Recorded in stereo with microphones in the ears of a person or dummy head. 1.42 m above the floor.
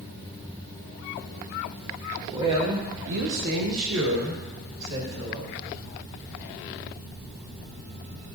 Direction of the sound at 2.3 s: 20° right (ahead or behind).